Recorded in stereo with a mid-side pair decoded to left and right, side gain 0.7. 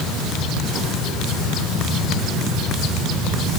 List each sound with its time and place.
Only background noise.